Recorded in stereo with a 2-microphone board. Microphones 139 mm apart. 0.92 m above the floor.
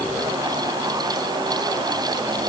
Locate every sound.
Only background noise.